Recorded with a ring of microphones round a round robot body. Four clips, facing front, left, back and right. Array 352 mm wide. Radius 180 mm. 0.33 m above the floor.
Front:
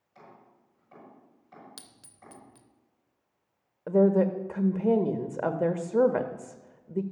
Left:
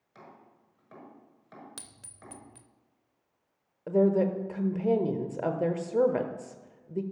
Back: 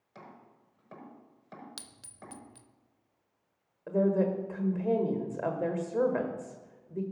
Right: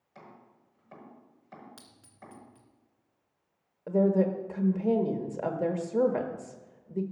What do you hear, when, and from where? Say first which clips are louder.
0.1 s chopping: even, back 1 dB; 165° left, 6 m
1.8 s a clink: even, back 2 dB; 100° left, 0.6 m
3.9 s a woman speaking: left 1 dB, front 5 dB; 15° left, 1.1 m